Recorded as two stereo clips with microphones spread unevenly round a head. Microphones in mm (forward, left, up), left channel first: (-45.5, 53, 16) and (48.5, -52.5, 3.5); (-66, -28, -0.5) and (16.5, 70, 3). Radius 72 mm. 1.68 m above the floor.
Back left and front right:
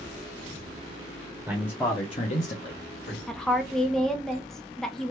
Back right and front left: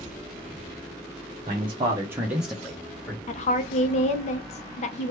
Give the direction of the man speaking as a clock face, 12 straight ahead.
11 o'clock.